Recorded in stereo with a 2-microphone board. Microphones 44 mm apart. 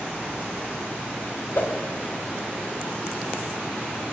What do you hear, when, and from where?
1.6 s a whoosh: 50° left (ahead or behind), 0.8 m